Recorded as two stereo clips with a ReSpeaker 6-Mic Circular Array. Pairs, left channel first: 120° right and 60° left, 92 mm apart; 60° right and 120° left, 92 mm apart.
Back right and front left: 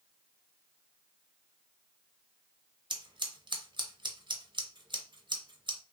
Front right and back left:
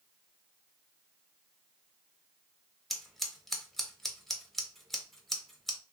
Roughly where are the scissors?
Ahead left.